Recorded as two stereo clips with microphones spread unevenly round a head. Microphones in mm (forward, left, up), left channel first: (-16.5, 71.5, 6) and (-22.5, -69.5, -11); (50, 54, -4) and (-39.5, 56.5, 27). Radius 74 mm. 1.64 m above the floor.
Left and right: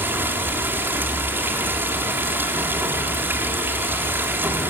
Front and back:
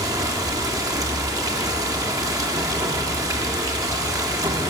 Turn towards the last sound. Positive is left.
turn(degrees=-170)